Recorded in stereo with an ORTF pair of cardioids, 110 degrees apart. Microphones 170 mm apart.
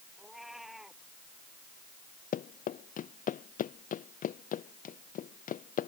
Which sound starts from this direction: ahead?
A cat meowing, at 0.2 s.